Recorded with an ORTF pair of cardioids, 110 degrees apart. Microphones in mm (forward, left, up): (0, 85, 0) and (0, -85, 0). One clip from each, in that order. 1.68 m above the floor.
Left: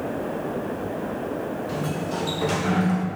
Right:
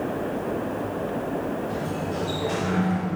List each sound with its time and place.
1.7 s a sliding door: 70° left, 1.5 m